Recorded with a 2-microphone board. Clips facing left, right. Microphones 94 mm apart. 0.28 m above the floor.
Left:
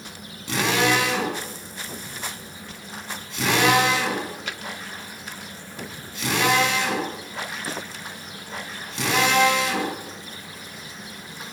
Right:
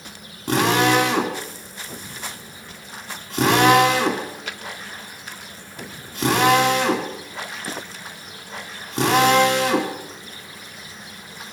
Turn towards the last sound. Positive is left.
turn(degrees=-45)  # may be behind; listen again after turning